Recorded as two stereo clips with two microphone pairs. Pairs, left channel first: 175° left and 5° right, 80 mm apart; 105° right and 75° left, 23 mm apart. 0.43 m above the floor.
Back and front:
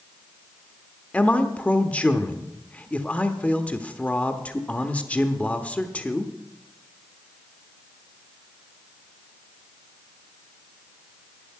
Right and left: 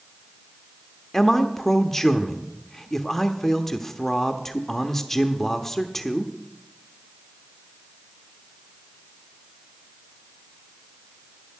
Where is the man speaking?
150° right, 0.8 m.